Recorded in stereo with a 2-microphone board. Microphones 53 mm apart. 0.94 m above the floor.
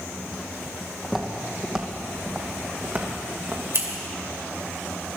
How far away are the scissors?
About 2.5 m.